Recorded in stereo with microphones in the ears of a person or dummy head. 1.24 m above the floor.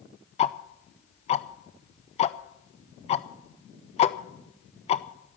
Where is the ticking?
25° left (ahead or behind), 0.6 m.